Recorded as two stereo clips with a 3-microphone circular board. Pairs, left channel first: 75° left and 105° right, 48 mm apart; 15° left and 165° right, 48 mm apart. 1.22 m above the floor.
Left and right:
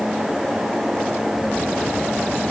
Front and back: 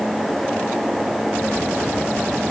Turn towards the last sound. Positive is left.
No sound to turn to.